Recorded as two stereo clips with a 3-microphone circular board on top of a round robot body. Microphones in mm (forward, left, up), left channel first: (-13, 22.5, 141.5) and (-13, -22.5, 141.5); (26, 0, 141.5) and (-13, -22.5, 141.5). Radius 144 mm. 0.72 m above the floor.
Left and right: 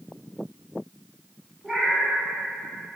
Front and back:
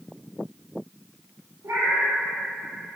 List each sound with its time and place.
1.6 s a cat meowing: 175° left, 1.6 m